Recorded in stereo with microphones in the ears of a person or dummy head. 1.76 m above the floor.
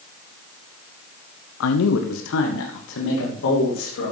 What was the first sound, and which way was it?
A man speaking, 75° left (ahead or behind).